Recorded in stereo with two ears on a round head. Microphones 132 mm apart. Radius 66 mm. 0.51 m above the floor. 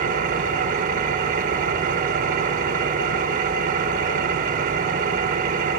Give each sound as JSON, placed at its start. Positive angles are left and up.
{"t": 0.0, "sound": "an engine running", "side_deg": -55, "distance_m": 0.8}